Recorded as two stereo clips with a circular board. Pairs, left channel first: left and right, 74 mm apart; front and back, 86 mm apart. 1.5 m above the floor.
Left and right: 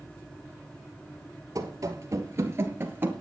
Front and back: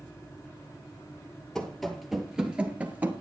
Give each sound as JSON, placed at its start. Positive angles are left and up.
{"t": 1.6, "sound": "running footsteps", "azimuth_deg": -85, "distance_m": 2.0}